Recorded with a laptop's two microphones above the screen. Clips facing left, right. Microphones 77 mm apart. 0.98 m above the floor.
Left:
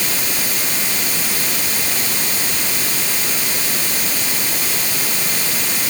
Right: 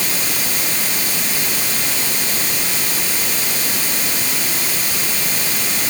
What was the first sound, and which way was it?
Only background noise.